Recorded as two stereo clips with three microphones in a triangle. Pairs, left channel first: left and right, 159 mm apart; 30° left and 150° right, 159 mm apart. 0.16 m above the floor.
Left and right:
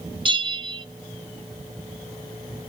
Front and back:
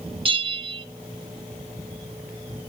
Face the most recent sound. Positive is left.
turn(degrees=-125)